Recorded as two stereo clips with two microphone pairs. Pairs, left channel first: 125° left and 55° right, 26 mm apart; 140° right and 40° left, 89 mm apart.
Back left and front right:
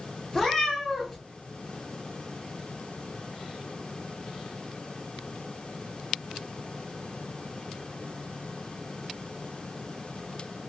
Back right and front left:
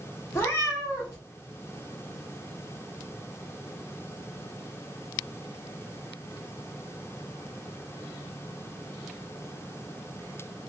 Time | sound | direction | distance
0.3 | a cat meowing | 175° right | 0.9 m